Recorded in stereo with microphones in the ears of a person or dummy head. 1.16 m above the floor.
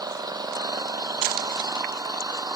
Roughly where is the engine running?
Centre.